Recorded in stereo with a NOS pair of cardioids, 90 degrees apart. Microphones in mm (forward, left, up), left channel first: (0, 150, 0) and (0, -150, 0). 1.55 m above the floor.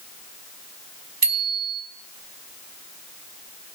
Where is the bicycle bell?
30° right, 4.5 m.